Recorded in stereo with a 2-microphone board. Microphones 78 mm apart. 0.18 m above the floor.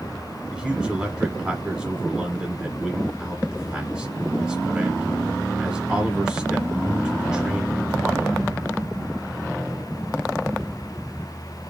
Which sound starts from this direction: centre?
A man speaking, at 0.5 s.